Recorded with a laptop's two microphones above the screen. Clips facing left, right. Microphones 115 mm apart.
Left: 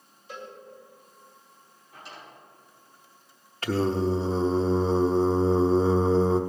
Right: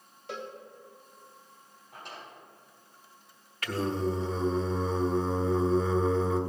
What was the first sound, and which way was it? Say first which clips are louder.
A cowbell: right 2 dB; 70° right (ahead or behind).